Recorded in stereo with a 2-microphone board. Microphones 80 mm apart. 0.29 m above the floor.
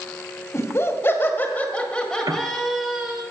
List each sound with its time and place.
0.5 s laughter: 35° left (ahead or behind), 1.9 m; by 3.2 s 10° right (ahead or behind), 1.9 m
2.3 s a piano: 55° right (ahead or behind), 0.7 m